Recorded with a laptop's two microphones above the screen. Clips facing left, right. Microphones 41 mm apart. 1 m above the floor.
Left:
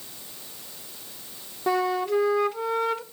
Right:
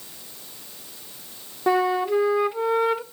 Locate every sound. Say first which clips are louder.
1.7 s a flute: right 3 dB; 15° right (ahead or behind), 0.5 m